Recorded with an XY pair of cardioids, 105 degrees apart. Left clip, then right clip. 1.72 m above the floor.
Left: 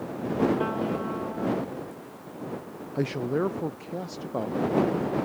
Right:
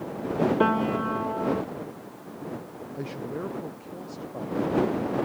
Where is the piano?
50° right.